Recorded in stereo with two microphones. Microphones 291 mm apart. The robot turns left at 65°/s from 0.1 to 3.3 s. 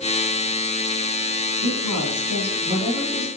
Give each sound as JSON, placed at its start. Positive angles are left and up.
{"t": 1.6, "sound": "a woman speaking", "azimuth_deg": -85, "distance_m": 4.0}